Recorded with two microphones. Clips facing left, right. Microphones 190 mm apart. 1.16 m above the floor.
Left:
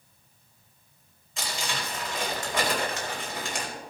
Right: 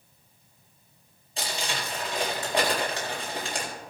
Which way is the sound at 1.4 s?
35° right (ahead or behind).